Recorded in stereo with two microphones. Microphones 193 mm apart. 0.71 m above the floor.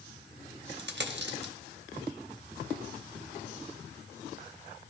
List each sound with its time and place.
0.8 s a dropped coin: 65° right (ahead or behind), 0.7 m